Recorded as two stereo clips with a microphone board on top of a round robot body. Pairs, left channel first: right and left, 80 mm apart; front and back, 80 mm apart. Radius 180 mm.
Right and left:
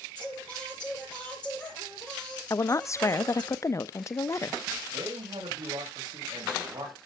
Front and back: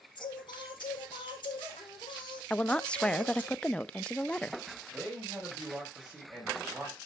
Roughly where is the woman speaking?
Right.